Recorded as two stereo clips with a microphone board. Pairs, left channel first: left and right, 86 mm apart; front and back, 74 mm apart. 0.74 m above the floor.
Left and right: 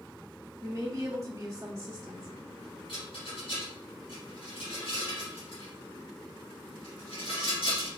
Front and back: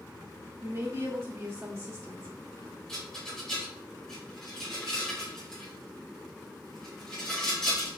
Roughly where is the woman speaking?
Behind right.